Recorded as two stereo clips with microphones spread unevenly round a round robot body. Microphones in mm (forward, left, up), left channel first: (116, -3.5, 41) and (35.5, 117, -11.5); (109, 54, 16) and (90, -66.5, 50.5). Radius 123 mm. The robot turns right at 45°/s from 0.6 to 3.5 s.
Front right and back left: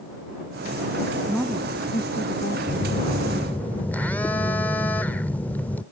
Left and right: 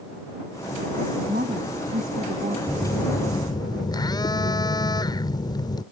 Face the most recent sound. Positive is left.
turn(degrees=35)